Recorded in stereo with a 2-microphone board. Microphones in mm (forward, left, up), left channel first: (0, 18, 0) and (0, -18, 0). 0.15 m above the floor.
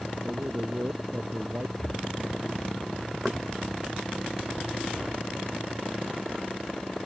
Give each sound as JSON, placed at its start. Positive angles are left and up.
{"t": 0.2, "sound": "a man speaking", "side_deg": -65}
{"t": 1.8, "sound": "breathing", "side_deg": 15}
{"t": 3.2, "sound": "knocking", "side_deg": -5}